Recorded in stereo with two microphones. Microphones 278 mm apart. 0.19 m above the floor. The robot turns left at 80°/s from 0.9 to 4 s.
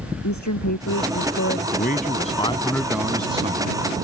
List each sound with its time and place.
0.2 s a woman speaking: 95° left; by 1.6 s 40° left
1.7 s a man speaking: 90° left; by 4.0 s 90° right